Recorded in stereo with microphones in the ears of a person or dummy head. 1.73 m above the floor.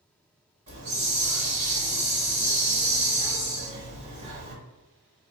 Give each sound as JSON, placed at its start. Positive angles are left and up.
{"t": 0.7, "sound": "a hiss", "side_deg": -35, "distance_m": 1.4}